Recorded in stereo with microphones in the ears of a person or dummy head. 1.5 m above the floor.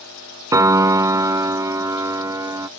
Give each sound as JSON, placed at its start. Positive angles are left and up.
{"t": 0.5, "sound": "a piano", "side_deg": -20}